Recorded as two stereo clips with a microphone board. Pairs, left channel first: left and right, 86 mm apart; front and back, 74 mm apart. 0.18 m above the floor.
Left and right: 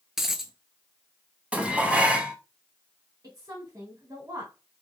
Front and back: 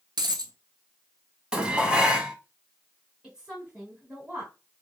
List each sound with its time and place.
0.2 s a dropped coin: 175° right, 0.6 m
1.5 s dishes clattering: 135° right, 0.8 m
3.2 s a woman speaking: 110° right, 2.0 m